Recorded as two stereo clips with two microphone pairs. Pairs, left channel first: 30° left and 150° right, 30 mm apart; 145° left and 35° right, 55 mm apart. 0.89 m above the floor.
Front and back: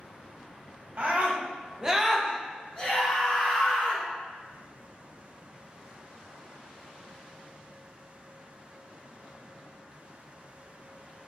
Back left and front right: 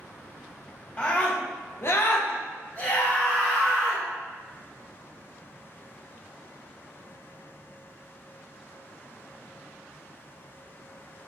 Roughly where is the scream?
Behind right.